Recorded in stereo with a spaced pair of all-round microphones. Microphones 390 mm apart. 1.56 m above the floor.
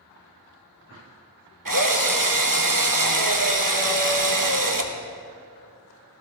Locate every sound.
1.6 s a drill: 55° right (ahead or behind), 1.1 m